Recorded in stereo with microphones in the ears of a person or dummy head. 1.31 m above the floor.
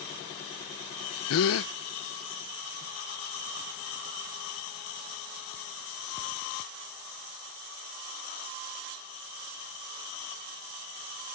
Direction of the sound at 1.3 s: 75° left (ahead or behind).